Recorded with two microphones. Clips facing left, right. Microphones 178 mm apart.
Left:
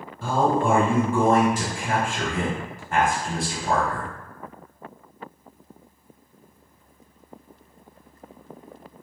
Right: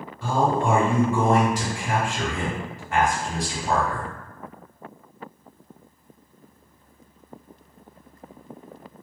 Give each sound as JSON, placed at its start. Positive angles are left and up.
{"t": 0.2, "sound": "a man speaking", "side_deg": 50, "distance_m": 1.6}